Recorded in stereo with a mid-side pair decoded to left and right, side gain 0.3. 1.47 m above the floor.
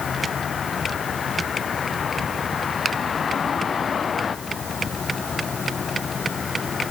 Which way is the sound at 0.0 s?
60° left.